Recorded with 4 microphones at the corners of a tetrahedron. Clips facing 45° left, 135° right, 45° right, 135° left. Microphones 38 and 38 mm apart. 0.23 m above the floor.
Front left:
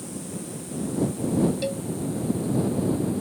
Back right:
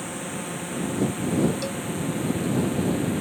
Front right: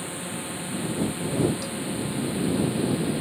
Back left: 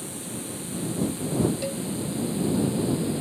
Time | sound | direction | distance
0.0 | a drone | 100° right | ?
1.6 | a cowbell | 100° left | ?